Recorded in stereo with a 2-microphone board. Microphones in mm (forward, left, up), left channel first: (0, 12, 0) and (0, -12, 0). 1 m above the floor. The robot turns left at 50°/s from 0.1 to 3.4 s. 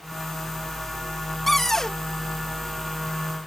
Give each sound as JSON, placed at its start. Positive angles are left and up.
{"t": 1.5, "sound": "a cupboard door", "side_deg": 5}